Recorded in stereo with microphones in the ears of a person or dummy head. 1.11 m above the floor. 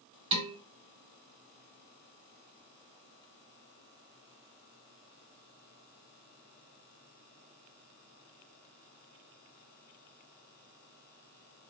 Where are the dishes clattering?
30° right (ahead or behind), 2.0 m.